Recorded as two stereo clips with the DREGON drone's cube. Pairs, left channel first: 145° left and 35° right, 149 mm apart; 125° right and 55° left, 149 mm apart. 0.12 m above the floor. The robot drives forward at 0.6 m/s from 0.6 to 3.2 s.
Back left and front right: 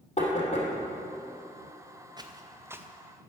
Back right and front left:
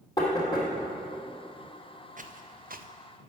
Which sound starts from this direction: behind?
Knocking, at 0.2 s.